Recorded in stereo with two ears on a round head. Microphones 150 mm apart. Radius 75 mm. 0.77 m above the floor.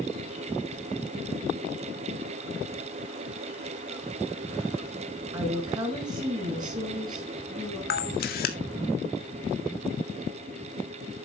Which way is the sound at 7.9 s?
60° left (ahead or behind).